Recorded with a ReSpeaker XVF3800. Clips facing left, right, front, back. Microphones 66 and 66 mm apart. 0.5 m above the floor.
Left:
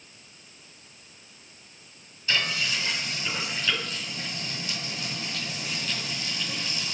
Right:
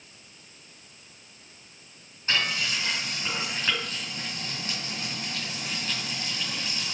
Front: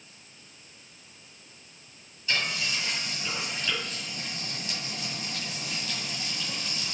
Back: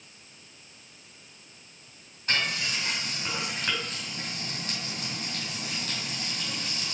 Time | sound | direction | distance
2.3 | frying | 145° right | 4 m